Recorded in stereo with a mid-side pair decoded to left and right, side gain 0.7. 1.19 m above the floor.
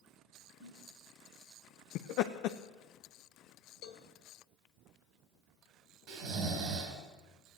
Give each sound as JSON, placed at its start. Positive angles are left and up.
{"t": 0.6, "sound": "a snare drum", "azimuth_deg": -65, "distance_m": 4.0}
{"t": 1.9, "sound": "laughter", "azimuth_deg": 65, "distance_m": 0.7}
{"t": 3.8, "sound": "a cowbell", "azimuth_deg": 65, "distance_m": 1.7}
{"t": 6.1, "sound": "snoring", "azimuth_deg": -70, "distance_m": 4.0}